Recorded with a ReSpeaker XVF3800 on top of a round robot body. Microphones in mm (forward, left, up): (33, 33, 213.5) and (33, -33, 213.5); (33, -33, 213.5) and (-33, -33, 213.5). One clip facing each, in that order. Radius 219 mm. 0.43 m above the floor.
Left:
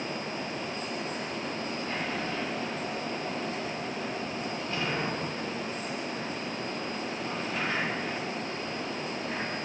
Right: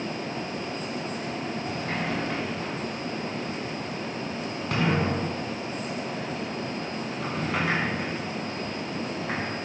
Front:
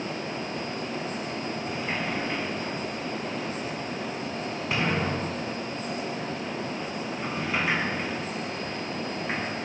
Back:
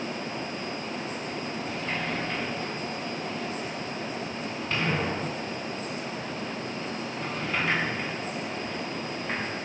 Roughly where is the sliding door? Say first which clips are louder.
Right 3 dB, front 1 dB; right.